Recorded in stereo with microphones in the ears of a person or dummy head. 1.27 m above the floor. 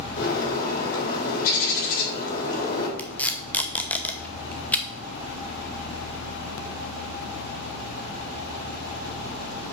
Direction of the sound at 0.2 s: 45° left (ahead or behind).